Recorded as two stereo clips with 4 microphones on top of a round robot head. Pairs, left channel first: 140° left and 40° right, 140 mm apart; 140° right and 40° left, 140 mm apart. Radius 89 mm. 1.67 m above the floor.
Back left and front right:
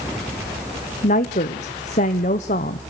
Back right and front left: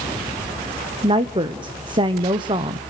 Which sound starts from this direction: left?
A woman speaking, at 1.0 s.